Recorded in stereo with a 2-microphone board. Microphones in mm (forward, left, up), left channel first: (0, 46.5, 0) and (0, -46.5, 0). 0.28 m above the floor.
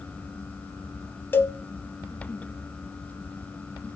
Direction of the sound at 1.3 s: 25° left (ahead or behind).